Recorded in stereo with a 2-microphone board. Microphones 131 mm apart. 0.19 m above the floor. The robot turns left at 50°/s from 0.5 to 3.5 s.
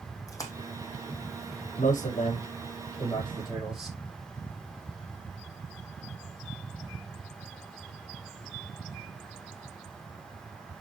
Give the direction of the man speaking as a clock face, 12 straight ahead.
9 o'clock.